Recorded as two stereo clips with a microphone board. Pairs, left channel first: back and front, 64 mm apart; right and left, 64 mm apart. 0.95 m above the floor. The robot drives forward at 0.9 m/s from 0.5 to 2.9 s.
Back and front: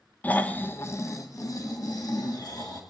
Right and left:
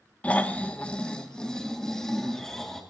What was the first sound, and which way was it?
Snoring, 140° right.